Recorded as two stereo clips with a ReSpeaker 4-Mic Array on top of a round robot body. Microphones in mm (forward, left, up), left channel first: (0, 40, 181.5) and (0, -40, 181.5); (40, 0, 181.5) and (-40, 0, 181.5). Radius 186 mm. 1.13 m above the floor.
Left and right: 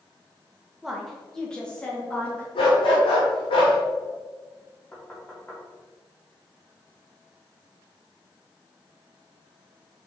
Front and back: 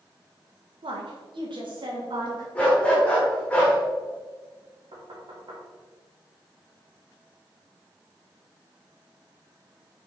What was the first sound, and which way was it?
A woman speaking, 175° right.